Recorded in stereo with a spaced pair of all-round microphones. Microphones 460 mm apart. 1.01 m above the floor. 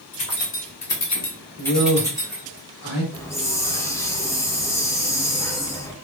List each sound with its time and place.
0.1 s keys jangling: 70° left (ahead or behind), 1.0 m; by 2.6 s 15° right (ahead or behind), 1.6 m
1.6 s a man speaking: 35° left (ahead or behind), 1.3 m
3.1 s a hiss: 5° left (ahead or behind), 0.5 m